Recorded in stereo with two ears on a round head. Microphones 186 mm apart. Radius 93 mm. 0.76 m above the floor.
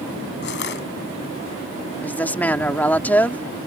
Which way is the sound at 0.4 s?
60° left (ahead or behind).